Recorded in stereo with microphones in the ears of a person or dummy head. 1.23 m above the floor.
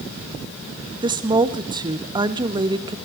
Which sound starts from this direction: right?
A woman speaking, at 1.0 s.